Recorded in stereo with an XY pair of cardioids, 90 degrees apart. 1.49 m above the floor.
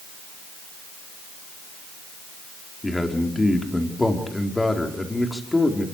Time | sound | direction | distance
2.8 | a man speaking | 15° left | 4.5 m